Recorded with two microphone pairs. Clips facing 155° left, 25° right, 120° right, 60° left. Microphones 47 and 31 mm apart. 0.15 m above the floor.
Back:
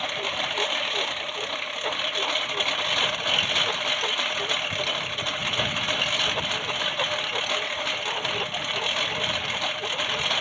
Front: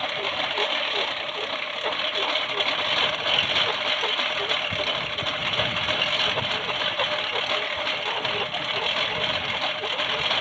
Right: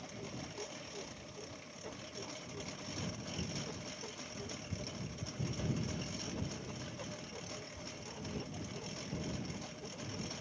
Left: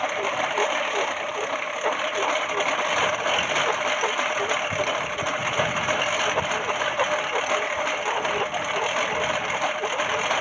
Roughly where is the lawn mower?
Ahead left.